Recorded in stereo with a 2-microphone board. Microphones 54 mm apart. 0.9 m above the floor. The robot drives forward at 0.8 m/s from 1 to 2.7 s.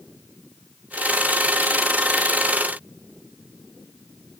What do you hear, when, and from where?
Only background noise.